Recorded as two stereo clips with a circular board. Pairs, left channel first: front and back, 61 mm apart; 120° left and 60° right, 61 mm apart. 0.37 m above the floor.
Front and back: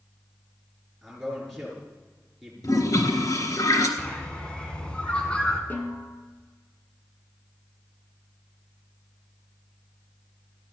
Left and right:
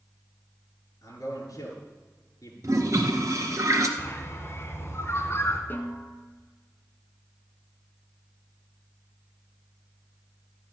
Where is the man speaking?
90° left, 7 m.